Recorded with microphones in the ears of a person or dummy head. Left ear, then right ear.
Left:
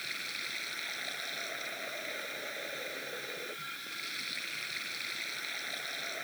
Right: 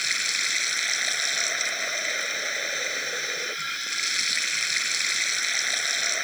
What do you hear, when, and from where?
0.0 s running water: 80° right